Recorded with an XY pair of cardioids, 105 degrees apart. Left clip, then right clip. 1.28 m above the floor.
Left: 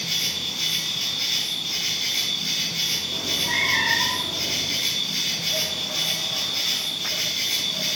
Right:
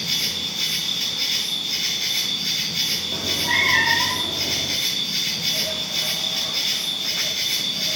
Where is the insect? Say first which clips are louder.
Right 1 dB; 20° right, 4.5 m.